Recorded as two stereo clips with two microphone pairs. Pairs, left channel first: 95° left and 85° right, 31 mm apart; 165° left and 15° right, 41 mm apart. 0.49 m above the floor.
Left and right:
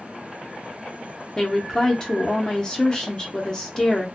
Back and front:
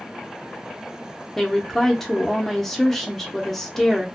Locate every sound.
1.4 s a woman speaking: 95° left, 0.7 m